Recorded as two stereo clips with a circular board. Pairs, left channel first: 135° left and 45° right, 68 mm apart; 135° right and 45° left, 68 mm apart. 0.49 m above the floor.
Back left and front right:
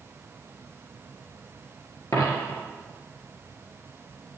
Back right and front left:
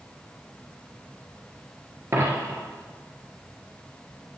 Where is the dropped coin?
100° left, 1.8 m.